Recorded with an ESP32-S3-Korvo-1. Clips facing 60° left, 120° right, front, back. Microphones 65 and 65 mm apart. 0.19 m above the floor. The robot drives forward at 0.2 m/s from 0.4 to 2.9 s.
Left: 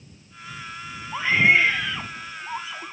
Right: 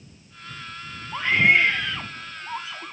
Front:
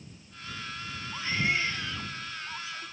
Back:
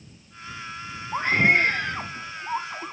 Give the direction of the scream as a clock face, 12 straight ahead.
7 o'clock.